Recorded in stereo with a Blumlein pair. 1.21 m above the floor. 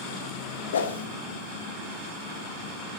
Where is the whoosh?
65° left, 1.4 m.